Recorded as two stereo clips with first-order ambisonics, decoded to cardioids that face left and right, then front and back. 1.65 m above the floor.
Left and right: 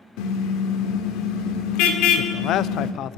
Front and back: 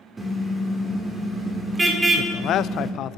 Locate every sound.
0.2 s a car horn: 105° left, 2.5 m
2.2 s a man speaking: 45° left, 0.5 m